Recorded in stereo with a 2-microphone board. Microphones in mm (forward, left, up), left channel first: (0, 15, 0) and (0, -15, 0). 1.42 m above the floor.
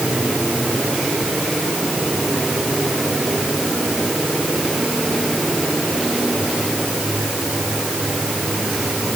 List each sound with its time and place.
Only background noise.